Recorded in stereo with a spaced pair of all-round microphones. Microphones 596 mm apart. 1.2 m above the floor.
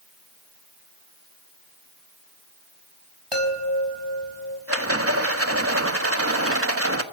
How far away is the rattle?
About 1.5 m.